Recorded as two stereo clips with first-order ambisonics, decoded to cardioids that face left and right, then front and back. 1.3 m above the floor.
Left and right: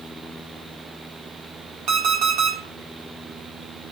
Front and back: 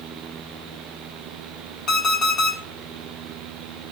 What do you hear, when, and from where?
1.9 s an alarm clock: 60° right, 1.3 m